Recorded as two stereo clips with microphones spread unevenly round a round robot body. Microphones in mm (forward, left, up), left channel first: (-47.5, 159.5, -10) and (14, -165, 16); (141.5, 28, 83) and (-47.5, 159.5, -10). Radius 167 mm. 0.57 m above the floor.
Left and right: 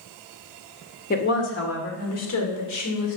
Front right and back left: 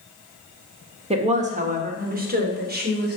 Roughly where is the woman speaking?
Behind left.